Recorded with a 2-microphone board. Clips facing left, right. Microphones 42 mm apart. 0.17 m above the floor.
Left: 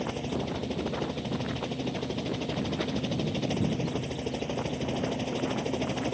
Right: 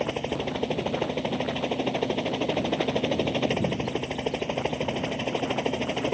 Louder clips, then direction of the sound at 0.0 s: Right 4 dB; 45° right (ahead or behind).